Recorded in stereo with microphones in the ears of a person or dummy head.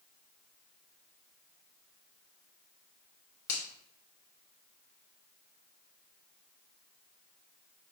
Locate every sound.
3.5 s a finger snap: 70° left (ahead or behind), 1.3 m